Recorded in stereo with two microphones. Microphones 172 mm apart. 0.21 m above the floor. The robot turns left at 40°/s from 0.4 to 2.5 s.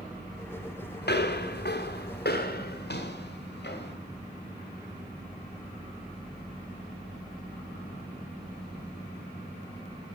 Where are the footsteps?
75° left (ahead or behind), 1.2 m; by 3.9 s 80° left, 2 m.